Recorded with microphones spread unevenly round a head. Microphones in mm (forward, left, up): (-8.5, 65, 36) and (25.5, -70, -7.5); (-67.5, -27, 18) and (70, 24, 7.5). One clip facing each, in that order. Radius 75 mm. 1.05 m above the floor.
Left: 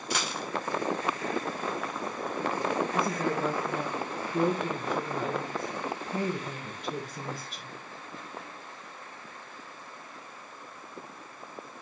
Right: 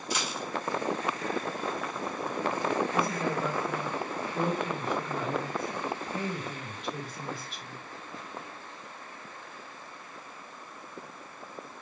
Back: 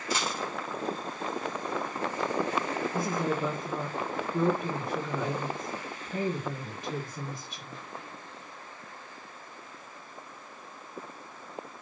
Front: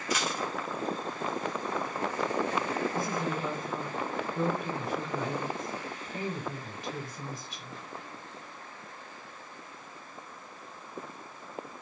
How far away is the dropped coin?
About 2 m.